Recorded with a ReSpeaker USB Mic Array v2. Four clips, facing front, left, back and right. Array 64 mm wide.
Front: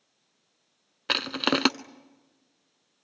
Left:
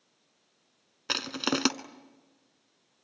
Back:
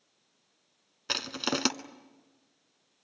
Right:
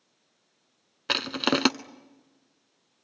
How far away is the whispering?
No whispering in this recording.